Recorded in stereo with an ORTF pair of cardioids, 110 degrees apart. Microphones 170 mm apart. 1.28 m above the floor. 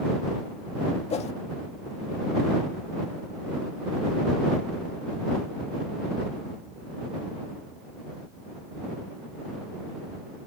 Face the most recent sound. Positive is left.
turn(degrees=40)